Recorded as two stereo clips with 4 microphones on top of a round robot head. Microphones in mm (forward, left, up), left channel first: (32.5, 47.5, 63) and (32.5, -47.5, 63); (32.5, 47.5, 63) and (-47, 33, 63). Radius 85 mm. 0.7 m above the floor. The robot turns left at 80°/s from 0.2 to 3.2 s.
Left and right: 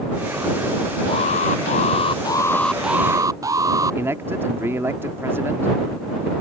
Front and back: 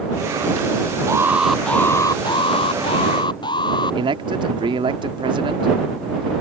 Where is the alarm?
140° left; by 4.0 s 30° right.